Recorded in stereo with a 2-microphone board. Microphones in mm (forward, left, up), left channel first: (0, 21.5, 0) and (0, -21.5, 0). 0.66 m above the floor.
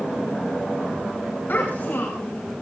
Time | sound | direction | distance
1.5 | a child speaking | 55° left (ahead or behind) | 5.5 m